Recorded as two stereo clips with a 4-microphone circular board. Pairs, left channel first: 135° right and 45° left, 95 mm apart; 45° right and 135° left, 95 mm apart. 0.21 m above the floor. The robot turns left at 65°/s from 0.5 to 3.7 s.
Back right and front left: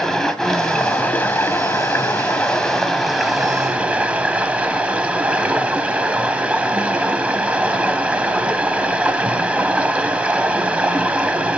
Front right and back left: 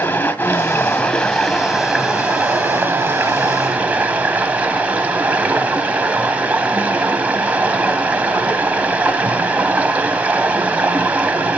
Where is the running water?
60° right, 0.9 m; by 11.6 s 90° left, 0.9 m.